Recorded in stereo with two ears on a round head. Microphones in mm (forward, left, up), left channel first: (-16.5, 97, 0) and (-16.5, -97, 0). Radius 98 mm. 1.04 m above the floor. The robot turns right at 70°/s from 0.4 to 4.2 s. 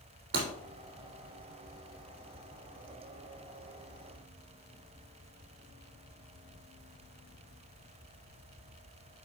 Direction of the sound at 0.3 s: 60° right (ahead or behind).